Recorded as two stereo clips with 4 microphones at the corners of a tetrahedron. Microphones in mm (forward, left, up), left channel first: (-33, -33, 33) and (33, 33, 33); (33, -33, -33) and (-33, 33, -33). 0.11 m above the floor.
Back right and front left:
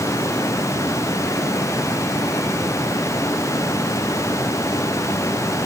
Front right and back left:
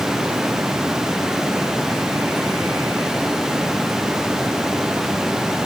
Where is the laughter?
I don't hear laughter.